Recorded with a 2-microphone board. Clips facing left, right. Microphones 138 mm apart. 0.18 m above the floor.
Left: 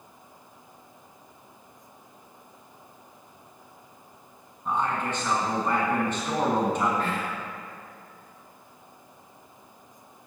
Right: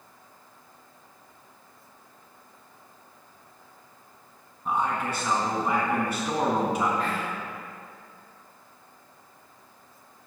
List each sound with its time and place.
4.7 s a man speaking: 10° right (ahead or behind), 1.6 m
7.0 s whispering: 45° left (ahead or behind), 2.5 m